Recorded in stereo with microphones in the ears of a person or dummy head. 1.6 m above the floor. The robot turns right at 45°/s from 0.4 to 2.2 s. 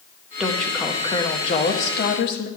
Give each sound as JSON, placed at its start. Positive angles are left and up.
{"t": 0.4, "sound": "a woman speaking", "azimuth_deg": -10, "distance_m": 0.8}